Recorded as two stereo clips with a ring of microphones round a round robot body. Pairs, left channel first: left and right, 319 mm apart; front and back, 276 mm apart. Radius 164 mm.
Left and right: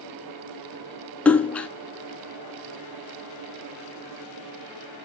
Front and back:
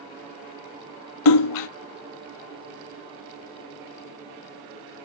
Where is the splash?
5° left, 0.6 m.